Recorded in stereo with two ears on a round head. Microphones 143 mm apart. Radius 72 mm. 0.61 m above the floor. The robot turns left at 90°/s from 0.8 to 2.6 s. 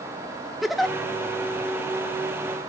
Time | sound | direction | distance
0.6 | a giggle | centre (ahead or behind) | 1.5 m